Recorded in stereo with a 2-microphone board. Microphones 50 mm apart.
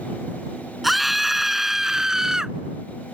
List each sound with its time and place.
0.8 s a scream: centre (ahead or behind); by 2.5 s 10° right (ahead or behind)